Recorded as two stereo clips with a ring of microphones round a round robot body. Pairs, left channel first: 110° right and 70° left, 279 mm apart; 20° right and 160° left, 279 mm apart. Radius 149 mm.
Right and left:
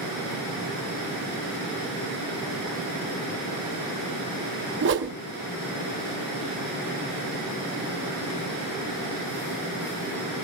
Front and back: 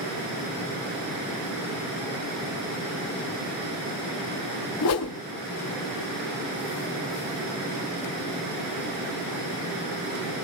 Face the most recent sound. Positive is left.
turn(degrees=15)